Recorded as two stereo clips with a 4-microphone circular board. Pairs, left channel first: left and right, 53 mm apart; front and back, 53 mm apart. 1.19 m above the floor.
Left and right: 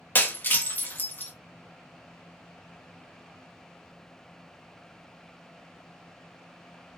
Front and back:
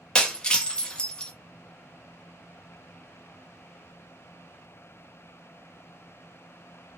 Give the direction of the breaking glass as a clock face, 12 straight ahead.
10 o'clock.